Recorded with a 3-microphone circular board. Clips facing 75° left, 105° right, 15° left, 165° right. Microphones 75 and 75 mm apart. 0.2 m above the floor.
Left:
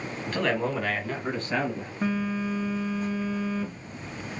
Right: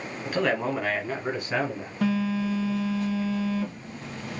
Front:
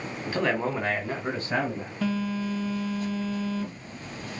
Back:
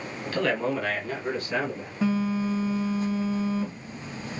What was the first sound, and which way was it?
A man speaking, 35° right.